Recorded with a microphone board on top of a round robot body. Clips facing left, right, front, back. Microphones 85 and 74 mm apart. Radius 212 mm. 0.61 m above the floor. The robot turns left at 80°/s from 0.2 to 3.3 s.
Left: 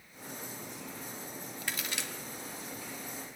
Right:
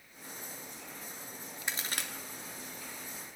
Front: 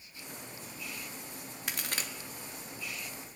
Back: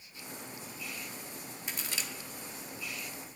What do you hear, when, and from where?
1.7 s a crack: 20° right, 0.7 m; by 2.1 s 55° right, 0.7 m